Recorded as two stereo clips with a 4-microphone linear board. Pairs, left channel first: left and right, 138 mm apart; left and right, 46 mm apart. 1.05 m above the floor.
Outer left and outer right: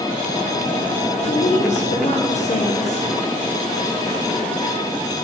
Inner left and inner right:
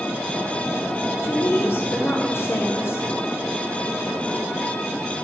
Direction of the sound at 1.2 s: 55° left (ahead or behind).